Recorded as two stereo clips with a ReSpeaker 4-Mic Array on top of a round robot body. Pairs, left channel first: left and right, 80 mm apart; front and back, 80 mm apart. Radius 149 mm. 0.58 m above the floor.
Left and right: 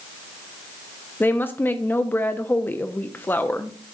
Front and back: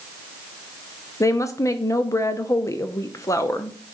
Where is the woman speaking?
35° left, 0.8 m.